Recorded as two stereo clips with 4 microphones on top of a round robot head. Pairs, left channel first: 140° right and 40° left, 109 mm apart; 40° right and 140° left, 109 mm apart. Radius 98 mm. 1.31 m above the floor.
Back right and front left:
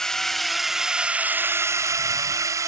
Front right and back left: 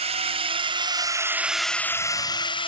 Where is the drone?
135° left; by 2.7 s 15° right.